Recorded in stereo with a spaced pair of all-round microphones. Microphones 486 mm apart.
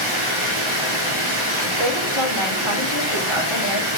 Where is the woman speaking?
75° left (ahead or behind), 4 m.